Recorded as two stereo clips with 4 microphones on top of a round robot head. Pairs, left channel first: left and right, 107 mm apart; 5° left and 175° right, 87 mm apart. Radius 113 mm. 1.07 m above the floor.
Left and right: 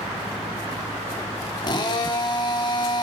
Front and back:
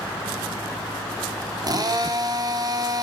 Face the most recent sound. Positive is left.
turn(degrees=145)